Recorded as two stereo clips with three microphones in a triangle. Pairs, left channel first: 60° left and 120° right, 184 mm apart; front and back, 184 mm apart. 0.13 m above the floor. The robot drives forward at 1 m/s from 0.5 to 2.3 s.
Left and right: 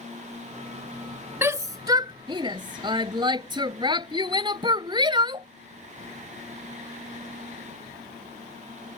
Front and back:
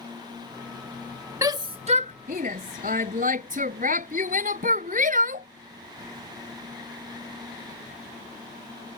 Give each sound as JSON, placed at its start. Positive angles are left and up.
{"t": 1.4, "sound": "a shout", "azimuth_deg": -165}